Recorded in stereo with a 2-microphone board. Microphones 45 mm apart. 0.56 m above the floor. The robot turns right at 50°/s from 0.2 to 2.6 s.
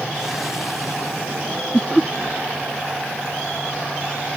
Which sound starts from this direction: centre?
Laughter, at 1.7 s.